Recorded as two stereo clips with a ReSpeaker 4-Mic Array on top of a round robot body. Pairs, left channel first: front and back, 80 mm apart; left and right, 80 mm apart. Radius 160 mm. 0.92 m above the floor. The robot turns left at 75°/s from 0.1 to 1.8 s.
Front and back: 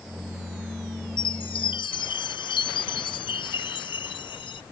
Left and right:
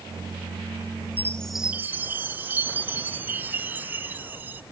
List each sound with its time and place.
1.2 s a chime: 25° left; by 4.6 s 20° right